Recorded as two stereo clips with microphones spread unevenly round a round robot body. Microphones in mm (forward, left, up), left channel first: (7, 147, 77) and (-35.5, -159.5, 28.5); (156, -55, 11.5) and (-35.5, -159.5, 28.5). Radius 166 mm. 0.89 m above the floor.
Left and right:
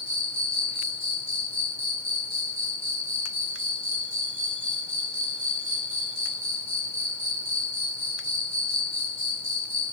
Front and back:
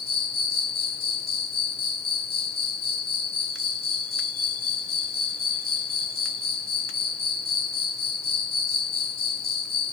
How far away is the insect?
About 1.6 m.